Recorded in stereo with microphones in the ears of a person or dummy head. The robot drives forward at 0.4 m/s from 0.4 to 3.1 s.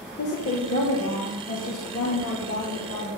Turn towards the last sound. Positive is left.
turn(degrees=70)  # may be behind; listen again after turning